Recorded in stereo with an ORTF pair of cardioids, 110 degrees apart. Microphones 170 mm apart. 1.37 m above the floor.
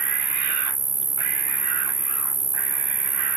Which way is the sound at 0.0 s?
20° right.